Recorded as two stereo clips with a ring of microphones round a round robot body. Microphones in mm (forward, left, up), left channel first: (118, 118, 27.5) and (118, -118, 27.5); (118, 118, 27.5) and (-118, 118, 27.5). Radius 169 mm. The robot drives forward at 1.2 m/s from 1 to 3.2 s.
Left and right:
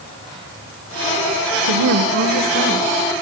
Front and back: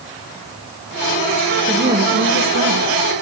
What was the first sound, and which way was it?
A woman speaking, 105° right.